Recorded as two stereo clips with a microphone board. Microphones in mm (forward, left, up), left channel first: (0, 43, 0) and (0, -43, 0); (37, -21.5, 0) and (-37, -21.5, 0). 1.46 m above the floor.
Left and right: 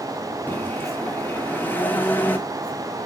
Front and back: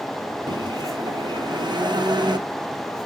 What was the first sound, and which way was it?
A microwave, 160° left.